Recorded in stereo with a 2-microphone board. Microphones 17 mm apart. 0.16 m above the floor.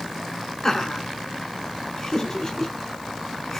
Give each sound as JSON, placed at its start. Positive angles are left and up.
{"t": 0.6, "sound": "laughter", "side_deg": 30, "distance_m": 2.0}